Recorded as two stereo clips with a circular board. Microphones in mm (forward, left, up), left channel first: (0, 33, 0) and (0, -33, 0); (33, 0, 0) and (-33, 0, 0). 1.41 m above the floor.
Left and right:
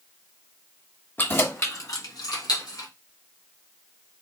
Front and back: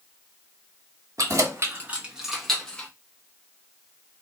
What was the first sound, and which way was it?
Keys jangling, 145° left.